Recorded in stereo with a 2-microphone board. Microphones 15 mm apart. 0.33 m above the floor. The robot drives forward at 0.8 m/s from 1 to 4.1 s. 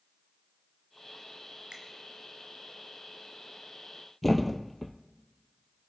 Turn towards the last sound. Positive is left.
turn(degrees=10)  # may be behind; listen again after turning